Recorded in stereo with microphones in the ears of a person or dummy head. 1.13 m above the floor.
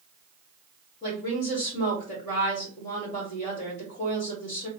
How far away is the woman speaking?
About 1.4 m.